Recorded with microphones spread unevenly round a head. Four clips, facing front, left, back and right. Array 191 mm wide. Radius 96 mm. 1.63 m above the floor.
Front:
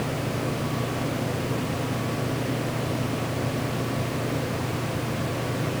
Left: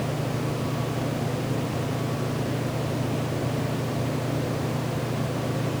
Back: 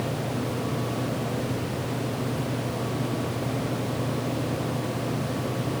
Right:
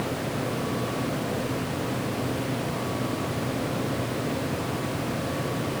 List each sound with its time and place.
Only background noise.